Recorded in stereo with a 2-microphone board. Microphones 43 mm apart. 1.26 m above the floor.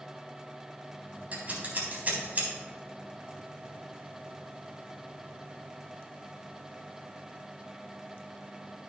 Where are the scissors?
40° right (ahead or behind), 3.5 m.